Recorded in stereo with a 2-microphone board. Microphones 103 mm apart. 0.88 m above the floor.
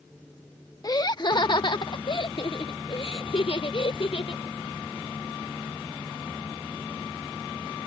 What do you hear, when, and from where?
0.8 s laughter: 40° left (ahead or behind); by 4.4 s 60° left (ahead or behind)